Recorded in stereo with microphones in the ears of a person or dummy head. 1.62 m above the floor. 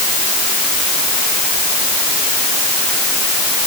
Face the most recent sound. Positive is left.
No sound to turn to.